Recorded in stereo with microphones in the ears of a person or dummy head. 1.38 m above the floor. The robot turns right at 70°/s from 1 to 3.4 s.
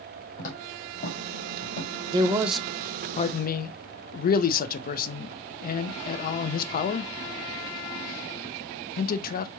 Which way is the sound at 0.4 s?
45° left (ahead or behind).